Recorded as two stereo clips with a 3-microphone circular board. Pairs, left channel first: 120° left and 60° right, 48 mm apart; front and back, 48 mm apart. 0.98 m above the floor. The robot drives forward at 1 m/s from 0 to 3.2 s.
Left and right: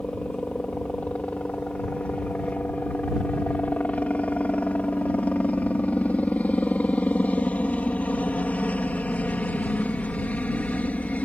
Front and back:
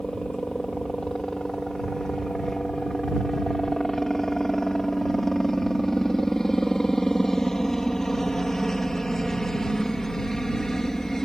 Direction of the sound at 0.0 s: 70° left.